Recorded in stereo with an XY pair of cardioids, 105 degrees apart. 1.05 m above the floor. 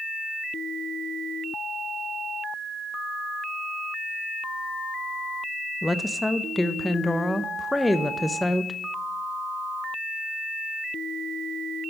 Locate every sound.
5.8 s a woman speaking: 5° left, 0.6 m